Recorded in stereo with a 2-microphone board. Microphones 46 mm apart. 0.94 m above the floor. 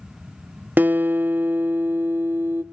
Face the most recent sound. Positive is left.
turn(degrees=-45)  # may be behind; listen again after turning